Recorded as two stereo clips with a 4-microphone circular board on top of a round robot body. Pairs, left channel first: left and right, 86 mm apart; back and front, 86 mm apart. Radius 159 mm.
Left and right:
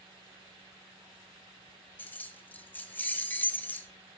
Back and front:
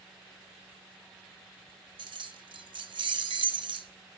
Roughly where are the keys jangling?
Ahead.